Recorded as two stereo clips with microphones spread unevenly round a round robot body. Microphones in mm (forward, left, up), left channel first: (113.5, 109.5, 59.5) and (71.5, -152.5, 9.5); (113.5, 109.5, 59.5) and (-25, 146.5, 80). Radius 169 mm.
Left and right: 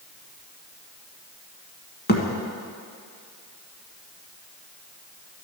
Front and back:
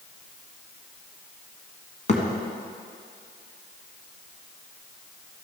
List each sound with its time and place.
2.1 s a thud: 25° left, 1.6 m